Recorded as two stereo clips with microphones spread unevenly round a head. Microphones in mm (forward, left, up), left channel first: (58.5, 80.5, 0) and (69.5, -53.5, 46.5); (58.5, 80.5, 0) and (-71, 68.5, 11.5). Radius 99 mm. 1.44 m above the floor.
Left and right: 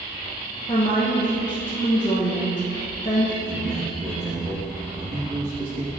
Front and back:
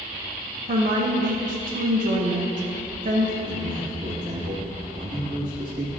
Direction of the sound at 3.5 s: 100° right.